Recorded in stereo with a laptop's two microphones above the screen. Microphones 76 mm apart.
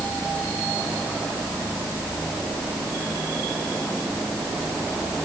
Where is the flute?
No flute in this recording.